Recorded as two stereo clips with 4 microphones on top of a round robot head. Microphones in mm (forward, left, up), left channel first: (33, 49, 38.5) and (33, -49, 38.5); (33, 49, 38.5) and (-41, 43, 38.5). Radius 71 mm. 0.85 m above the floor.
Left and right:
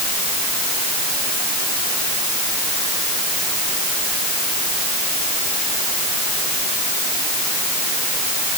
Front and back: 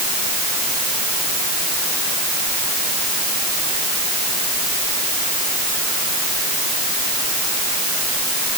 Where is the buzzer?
No buzzer in this recording.